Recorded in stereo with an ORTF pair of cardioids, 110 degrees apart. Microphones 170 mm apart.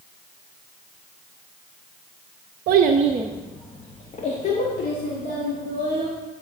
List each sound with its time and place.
2.7 s a child speaking: 70° right, 0.7 m; by 6.1 s 55° left, 3 m